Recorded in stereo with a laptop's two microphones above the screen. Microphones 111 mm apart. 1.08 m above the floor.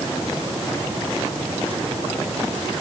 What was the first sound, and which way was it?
Only background noise.